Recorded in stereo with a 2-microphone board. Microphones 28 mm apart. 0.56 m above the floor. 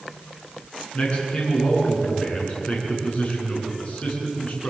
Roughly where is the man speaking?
Left.